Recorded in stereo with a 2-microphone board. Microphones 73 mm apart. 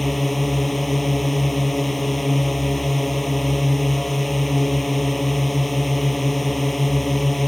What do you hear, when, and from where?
0.0 s a drone: centre (ahead or behind)